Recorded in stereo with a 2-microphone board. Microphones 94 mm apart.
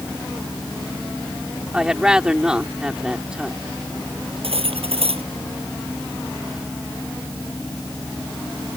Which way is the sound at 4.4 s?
90° right.